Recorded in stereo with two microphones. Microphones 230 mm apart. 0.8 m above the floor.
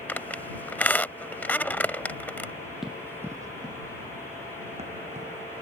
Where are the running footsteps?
Centre (ahead or behind); by 5.5 s 30° right (ahead or behind).